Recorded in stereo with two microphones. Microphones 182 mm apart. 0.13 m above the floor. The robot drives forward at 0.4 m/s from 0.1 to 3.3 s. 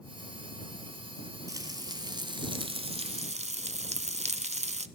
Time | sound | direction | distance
1.5 | frying | 20° right (ahead or behind) | 1.1 m